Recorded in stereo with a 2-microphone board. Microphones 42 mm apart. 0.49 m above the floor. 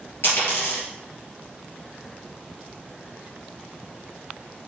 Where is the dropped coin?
55° left (ahead or behind), 3.5 m.